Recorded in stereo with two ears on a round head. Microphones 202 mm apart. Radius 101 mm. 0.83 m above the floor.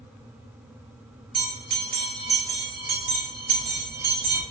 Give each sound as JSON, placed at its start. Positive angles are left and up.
{"t": 1.3, "sound": "a bell", "side_deg": -45, "distance_m": 1.9}